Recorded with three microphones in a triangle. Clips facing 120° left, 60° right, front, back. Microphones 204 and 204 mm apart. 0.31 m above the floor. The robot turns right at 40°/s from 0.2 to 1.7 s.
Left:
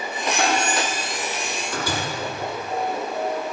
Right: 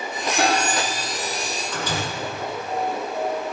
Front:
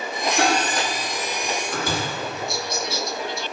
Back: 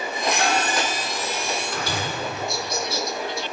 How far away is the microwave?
About 6.5 m.